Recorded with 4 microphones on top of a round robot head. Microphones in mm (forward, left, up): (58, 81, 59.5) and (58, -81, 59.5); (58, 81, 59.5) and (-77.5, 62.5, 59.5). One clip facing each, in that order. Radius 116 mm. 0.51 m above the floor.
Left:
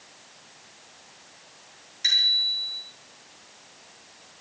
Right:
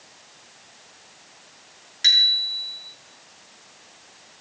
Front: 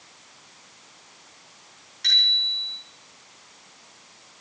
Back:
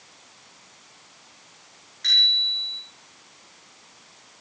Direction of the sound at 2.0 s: 75° right.